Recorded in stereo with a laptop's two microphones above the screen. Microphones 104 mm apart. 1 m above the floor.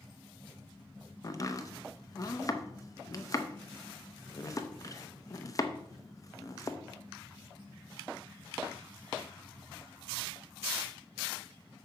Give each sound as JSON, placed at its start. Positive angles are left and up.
{"t": 1.2, "sound": "chopping", "side_deg": 35, "distance_m": 0.6}